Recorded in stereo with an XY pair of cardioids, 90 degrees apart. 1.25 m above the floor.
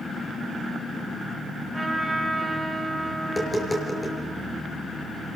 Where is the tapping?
20° left, 5 m.